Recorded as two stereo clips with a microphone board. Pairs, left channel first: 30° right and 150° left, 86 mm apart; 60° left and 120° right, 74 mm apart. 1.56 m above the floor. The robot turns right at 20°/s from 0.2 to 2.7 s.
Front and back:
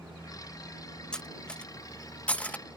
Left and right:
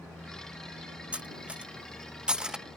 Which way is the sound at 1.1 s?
90° right.